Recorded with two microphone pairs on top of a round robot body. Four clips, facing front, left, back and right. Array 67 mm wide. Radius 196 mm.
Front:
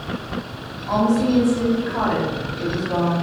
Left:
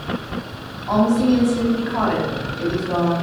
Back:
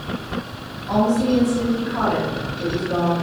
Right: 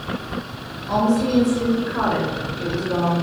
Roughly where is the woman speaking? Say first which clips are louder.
Left 2 dB, even; left.